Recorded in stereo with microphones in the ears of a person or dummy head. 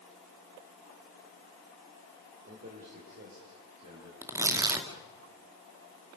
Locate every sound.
2.5 s a man speaking: 45° right (ahead or behind), 5.5 m; by 4.1 s 60° right (ahead or behind), 7.5 m
4.2 s tearing paper: 15° right (ahead or behind), 2 m